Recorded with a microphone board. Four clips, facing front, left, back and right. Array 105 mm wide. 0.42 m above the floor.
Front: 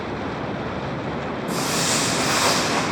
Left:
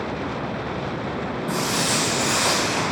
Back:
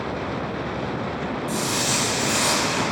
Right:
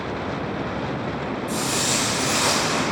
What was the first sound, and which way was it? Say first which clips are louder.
Footsteps: left 3 dB, front 4 dB; 50° left.